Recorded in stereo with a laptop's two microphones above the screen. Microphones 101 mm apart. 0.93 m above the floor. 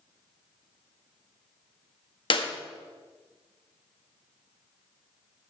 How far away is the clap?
About 1.5 m.